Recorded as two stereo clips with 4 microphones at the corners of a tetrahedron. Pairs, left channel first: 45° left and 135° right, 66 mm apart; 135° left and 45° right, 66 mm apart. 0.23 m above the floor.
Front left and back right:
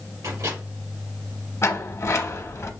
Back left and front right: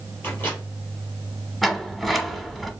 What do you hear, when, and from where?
0.2 s a microwave: 170° right, 3.5 m
1.6 s a sliding door: 50° left, 1.0 m